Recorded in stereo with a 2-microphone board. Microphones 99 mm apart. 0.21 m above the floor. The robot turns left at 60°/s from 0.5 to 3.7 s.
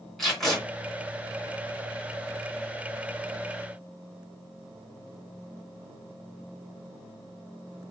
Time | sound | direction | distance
0.2 | tape being pulled | centre (ahead or behind) | 2 m